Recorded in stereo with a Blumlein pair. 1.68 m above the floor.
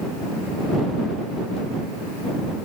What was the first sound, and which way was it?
Only background noise.